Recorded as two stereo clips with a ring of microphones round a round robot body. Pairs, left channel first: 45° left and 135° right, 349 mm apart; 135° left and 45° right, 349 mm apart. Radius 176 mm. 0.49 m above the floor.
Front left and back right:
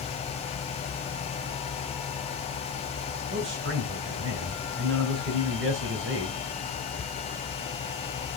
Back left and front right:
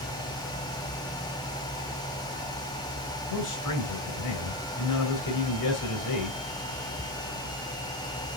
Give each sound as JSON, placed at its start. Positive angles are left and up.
{"t": 3.3, "sound": "a man speaking", "azimuth_deg": 170, "distance_m": 2.0}